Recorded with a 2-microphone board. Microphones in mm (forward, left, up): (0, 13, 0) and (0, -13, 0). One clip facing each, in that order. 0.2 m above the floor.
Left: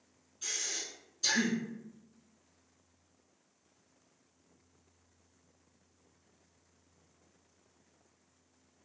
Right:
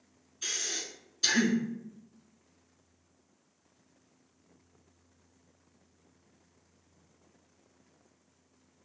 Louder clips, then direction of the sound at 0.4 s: Right 3 dB; 45° right (ahead or behind).